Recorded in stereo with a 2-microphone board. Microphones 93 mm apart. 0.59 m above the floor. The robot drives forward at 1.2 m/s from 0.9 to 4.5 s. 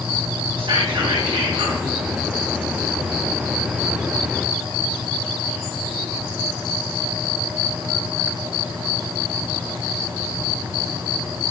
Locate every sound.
0.6 s whispering: 75° right (ahead or behind), 4.5 m